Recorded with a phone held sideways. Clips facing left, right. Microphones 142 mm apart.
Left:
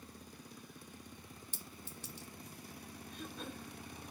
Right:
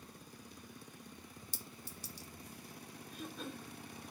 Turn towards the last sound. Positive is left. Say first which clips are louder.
# right 1 dB
turn(degrees=0)  # may be behind; listen again after turning